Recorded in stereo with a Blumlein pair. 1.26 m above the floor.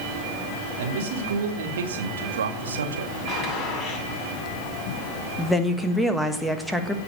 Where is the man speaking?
55° right, 3 m; by 3.1 s 70° right, 1.9 m.